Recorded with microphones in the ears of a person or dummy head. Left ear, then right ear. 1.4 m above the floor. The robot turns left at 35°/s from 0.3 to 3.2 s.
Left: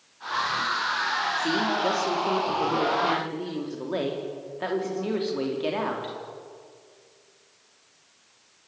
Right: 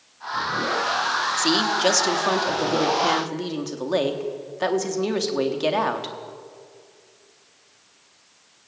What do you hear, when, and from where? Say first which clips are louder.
1.4 s a woman speaking: right 4 dB; 50° right, 3 m; by 6.1 s 115° right, 3 m